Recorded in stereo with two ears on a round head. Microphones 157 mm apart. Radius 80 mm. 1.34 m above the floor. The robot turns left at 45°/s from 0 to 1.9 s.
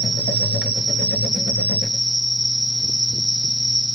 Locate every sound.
0.0 s an insect: 95° right, 1.5 m; by 4.0 s straight behind, 1.5 m